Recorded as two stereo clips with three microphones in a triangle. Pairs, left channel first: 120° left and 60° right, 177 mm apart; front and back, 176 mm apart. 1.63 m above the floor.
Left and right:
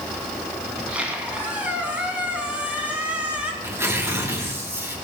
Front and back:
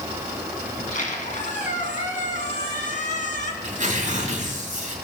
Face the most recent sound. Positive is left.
turn(degrees=-135)